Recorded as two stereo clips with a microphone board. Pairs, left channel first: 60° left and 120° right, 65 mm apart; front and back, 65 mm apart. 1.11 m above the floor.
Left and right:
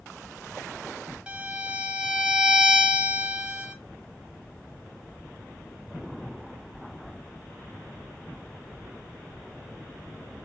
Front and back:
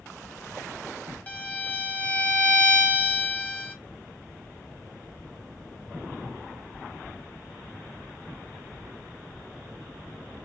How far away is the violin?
About 0.7 m.